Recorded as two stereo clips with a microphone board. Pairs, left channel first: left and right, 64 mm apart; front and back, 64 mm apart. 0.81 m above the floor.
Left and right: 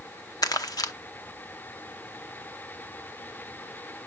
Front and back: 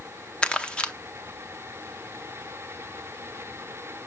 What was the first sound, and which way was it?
Crumpling, 75° left.